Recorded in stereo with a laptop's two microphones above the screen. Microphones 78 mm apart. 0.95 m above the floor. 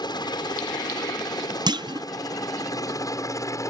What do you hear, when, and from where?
0.0 s a helicopter: 65° left (ahead or behind); by 3.7 s 40° left (ahead or behind)
1.7 s a clunk: 65° right (ahead or behind)